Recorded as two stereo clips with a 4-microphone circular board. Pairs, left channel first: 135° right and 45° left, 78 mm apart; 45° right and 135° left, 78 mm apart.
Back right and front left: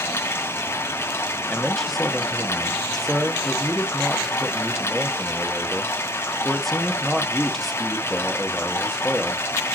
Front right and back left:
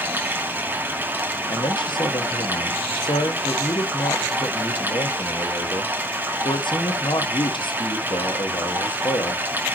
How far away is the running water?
About 1.2 m.